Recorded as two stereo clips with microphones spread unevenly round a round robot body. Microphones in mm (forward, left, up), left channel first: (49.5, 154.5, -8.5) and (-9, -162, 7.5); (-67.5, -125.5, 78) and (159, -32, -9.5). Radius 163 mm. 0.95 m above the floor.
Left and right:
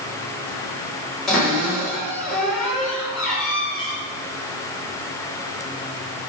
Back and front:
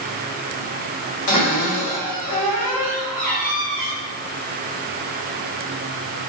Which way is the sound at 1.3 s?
170° left.